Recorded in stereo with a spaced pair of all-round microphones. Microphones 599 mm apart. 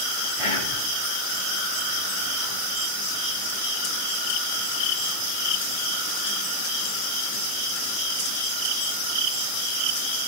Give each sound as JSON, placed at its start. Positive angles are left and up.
{"t": 0.4, "sound": "whispering", "side_deg": 55, "distance_m": 1.2}